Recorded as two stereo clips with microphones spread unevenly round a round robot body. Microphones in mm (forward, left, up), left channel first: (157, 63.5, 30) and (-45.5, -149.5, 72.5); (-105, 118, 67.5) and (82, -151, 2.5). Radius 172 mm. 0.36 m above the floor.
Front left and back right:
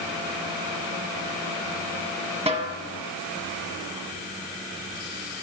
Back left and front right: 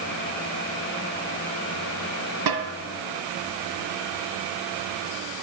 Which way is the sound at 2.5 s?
60° right.